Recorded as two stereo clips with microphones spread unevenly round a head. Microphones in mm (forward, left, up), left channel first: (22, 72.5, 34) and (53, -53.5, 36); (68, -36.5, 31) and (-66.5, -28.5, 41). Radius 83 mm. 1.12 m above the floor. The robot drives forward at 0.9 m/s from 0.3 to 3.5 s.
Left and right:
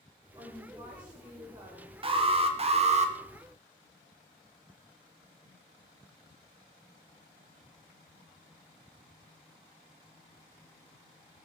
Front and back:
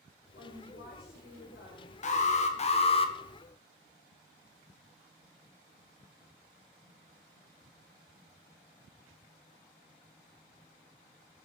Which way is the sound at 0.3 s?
15° right.